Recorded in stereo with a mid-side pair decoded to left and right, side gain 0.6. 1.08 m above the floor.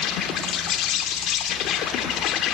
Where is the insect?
60° left, 2.5 m.